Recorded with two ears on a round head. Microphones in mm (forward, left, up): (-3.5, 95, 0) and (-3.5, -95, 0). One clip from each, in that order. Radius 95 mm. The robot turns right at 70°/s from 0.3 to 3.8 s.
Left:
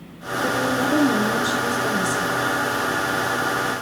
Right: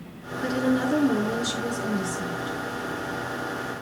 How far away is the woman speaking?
About 5 m.